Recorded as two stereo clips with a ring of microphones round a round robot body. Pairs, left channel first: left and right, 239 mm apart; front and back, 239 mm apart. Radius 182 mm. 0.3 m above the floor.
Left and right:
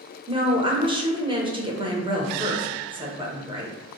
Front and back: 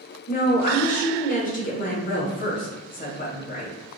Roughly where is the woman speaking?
Ahead right.